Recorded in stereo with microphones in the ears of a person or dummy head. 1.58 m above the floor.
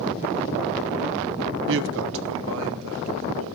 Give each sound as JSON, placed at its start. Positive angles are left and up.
{"t": 1.7, "sound": "a woman speaking", "side_deg": -60, "distance_m": 0.7}